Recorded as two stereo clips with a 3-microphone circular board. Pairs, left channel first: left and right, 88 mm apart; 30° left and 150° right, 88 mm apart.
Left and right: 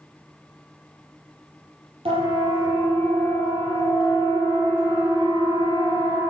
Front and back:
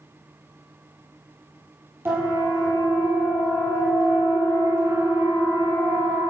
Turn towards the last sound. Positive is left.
turn(degrees=-115)